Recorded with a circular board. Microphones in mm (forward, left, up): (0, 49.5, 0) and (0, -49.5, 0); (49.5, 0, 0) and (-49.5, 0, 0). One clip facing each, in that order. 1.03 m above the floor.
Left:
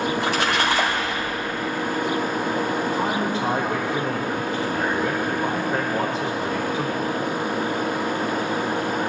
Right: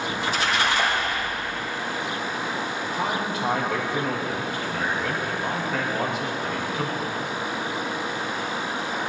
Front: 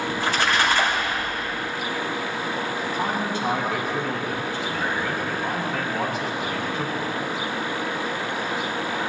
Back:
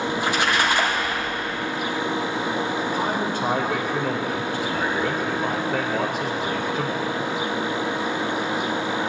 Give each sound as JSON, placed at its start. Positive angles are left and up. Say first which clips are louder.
{"t": 0.1, "sound": "a splash", "louder": "left 3 dB, front 1 dB", "azimuth_deg": 110, "distance_m": 2.5}
{"t": 2.9, "sound": "a man speaking", "louder": "left 3 dB, back 1 dB", "azimuth_deg": 145, "distance_m": 4.5}